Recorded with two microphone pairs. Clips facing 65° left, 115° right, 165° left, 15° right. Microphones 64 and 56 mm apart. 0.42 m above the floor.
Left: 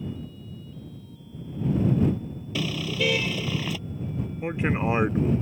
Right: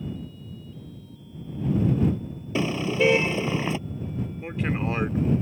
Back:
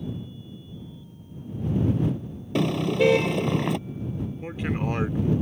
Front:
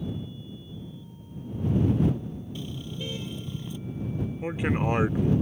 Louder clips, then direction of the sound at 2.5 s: Right 5 dB, back 15 dB; 175° right.